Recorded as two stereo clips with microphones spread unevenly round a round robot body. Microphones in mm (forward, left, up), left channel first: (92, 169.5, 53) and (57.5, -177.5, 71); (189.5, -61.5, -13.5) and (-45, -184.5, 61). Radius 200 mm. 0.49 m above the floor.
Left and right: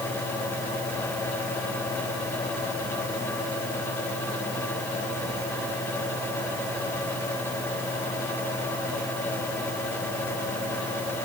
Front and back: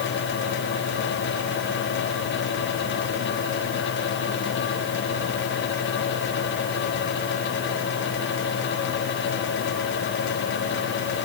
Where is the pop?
No pop in this recording.